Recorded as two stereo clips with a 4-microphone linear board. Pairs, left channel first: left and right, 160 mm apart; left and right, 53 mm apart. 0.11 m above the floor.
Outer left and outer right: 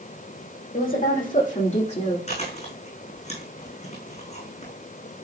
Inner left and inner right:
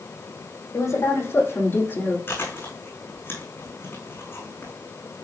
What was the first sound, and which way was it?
A woman speaking, 60° left (ahead or behind).